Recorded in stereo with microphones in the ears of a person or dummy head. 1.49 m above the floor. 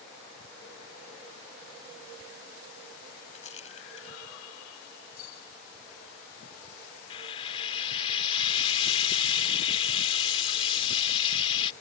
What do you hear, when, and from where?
3.3 s a rattle: 35° left (ahead or behind)
5.2 s a bell: 60° left (ahead or behind)
7.1 s frying: 35° left (ahead or behind)